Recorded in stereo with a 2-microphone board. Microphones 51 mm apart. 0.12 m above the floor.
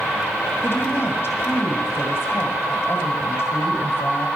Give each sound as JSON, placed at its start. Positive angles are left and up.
{"t": 0.6, "sound": "a woman speaking", "side_deg": 40, "distance_m": 2.5}